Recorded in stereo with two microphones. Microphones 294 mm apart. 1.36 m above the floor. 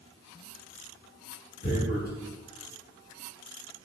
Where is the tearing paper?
35° left (ahead or behind), 3.5 m.